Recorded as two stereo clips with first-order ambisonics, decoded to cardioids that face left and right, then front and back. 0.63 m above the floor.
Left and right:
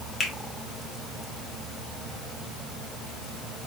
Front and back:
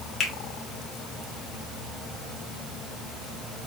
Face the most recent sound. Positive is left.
turn(degrees=40)